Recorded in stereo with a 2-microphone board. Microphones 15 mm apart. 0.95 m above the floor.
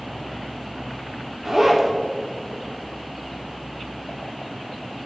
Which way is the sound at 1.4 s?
25° right (ahead or behind).